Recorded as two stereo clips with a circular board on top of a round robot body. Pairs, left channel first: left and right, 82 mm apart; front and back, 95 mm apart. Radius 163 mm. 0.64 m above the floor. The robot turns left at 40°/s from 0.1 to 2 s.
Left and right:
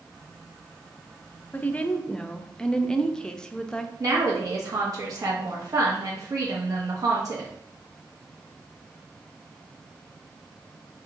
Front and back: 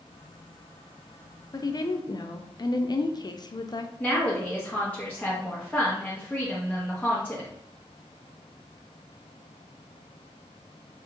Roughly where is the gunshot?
No gunshot in this recording.